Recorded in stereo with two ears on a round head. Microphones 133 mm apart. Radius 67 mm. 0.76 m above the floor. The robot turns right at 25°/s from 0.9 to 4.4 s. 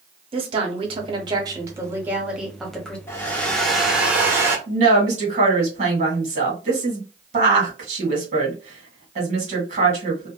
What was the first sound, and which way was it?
A woman speaking, 45° right.